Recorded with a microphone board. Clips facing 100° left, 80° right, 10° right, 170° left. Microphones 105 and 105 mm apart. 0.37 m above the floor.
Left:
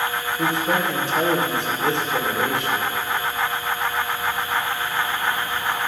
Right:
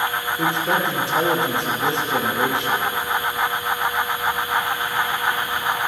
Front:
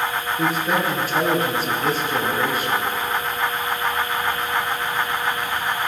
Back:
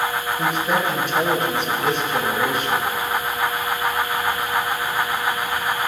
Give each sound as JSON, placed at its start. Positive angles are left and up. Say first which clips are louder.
{"t": 0.4, "sound": "a man speaking", "louder": "even, even", "azimuth_deg": -60, "distance_m": 4.5}